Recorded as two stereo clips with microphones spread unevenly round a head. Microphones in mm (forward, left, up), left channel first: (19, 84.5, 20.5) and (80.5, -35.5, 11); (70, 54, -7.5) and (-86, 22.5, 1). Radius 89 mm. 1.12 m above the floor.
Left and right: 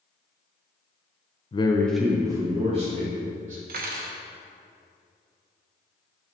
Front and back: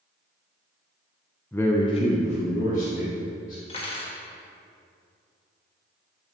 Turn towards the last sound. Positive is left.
turn(degrees=-50)